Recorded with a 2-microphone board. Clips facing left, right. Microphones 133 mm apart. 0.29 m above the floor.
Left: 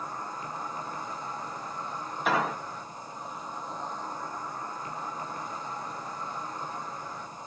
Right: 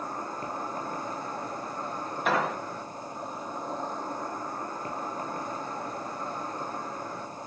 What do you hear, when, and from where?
0.0 s an insect: 55° right (ahead or behind), 1.4 m
2.2 s an explosion: centre (ahead or behind), 0.8 m